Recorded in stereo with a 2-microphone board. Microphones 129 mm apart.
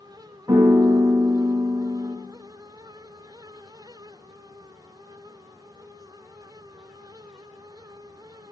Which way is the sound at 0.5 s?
30° right (ahead or behind).